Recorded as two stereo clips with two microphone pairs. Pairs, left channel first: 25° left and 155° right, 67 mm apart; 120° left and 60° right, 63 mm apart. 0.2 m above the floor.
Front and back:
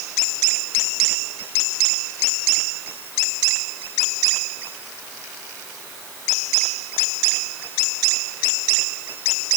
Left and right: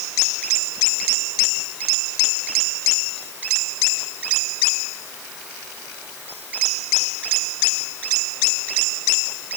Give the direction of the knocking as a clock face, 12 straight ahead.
I don't hear knocking.